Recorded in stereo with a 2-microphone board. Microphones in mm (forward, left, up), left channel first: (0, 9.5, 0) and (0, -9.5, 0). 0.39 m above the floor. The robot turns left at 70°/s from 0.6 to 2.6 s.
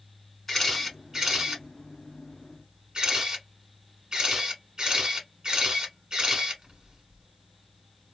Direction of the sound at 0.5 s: 15° left (ahead or behind).